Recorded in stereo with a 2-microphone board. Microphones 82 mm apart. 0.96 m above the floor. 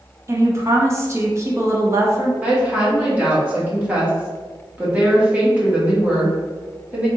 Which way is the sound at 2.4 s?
15° right (ahead or behind).